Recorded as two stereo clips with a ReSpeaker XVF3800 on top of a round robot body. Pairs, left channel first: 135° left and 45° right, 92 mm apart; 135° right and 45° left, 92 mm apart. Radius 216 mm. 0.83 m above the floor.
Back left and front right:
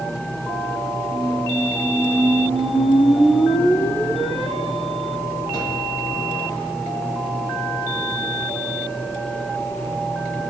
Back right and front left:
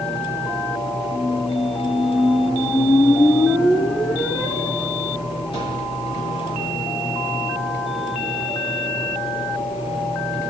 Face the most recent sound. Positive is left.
turn(degrees=-165)